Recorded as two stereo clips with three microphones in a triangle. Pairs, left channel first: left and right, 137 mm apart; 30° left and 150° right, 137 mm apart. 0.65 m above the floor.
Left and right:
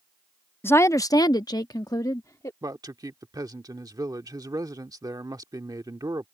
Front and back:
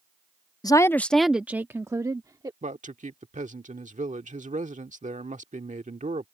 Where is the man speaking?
150° right.